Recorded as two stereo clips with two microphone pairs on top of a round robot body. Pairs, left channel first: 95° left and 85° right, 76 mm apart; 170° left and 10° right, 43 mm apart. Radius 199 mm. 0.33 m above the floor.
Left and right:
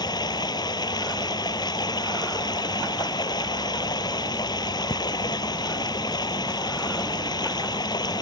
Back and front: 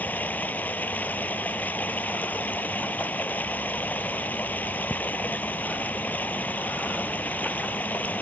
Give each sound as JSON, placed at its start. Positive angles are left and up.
{"t": 0.0, "sound": "running water", "azimuth_deg": 120}